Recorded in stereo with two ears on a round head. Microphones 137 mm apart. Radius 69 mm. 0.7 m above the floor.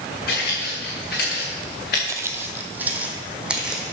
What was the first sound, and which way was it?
Footsteps, 65° left (ahead or behind).